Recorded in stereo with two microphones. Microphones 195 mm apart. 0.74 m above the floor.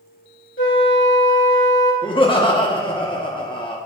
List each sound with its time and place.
0.6 s a flute: 70° left (ahead or behind), 1.9 m
2.0 s laughter: 25° left (ahead or behind), 0.9 m